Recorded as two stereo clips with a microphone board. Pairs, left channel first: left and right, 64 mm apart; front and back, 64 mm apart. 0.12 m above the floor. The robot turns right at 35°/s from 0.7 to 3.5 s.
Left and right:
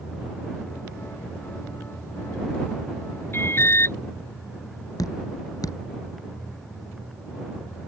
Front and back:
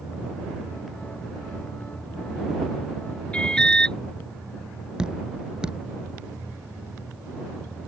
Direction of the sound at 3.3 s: 65° left.